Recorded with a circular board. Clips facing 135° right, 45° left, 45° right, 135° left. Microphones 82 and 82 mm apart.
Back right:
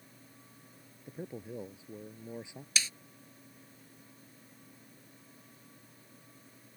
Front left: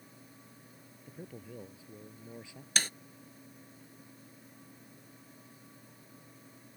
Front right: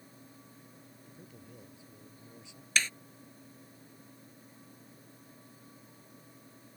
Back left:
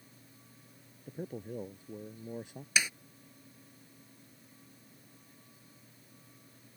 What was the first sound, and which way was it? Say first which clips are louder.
A man speaking: back right 5 dB, back left 15 dB; 160° left.